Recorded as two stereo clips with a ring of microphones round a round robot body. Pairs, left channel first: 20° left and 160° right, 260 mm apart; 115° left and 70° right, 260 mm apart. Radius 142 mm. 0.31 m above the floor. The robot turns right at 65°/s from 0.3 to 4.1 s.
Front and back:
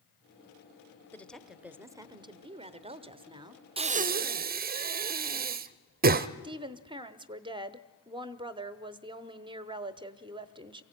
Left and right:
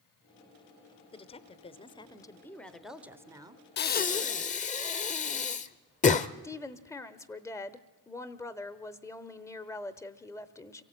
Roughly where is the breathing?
Behind left.